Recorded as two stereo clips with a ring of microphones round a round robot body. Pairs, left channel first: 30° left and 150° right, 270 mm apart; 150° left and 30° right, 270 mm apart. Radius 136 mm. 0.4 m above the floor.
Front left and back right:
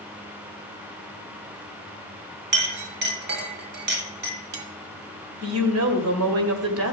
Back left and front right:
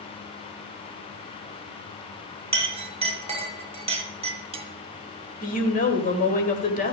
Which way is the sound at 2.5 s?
100° right.